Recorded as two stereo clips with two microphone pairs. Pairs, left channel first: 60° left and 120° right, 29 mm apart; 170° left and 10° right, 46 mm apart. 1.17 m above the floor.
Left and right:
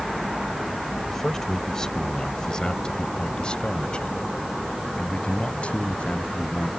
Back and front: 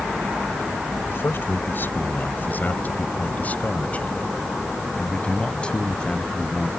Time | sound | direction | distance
1.1 | a man speaking | 130° left | ?